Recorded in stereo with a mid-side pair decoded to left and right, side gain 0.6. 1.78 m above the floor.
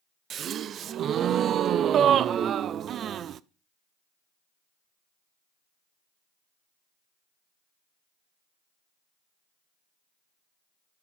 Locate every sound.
0.3 s a gasp: 45° right, 0.6 m